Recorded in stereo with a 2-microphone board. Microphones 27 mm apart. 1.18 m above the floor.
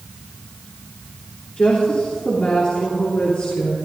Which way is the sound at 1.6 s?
45° left (ahead or behind).